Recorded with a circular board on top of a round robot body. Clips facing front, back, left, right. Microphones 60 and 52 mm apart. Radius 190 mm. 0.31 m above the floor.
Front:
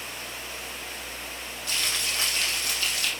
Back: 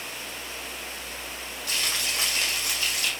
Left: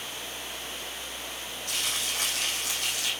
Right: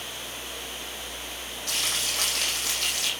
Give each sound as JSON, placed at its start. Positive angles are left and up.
{"t": 1.7, "sound": "frying", "azimuth_deg": -100, "distance_m": 9.0}